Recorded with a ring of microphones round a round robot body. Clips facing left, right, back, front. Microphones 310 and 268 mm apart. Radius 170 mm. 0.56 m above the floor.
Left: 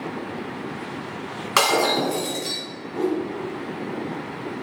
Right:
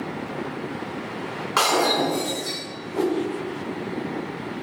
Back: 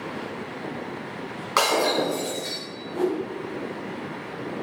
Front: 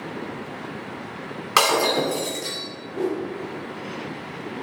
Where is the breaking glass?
45° left, 3 m.